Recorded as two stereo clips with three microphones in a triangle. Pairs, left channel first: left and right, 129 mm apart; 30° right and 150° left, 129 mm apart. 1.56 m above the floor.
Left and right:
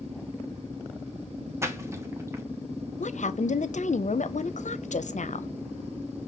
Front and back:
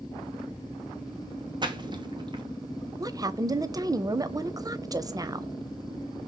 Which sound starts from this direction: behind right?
A splash, at 1.6 s.